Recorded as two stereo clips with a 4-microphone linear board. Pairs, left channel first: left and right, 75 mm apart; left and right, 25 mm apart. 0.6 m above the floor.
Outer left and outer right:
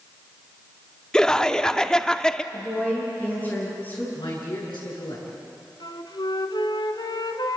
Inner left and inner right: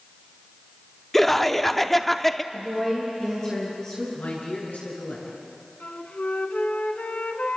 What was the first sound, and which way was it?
Laughter, 10° left (ahead or behind).